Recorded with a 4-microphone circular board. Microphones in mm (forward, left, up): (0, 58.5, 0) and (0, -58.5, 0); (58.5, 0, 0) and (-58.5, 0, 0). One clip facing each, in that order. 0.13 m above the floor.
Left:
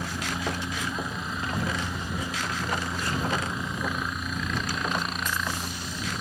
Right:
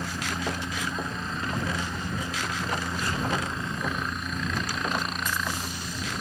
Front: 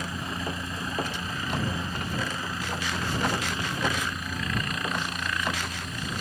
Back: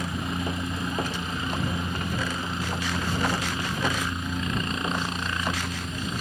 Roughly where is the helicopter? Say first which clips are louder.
Even, back 3 dB; behind.